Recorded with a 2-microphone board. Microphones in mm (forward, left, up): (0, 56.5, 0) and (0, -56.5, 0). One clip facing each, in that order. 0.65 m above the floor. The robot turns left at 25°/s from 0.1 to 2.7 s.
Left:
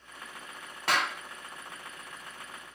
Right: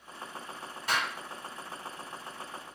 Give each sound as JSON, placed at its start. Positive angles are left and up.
{"t": 0.9, "sound": "a clap", "side_deg": 70, "distance_m": 0.8}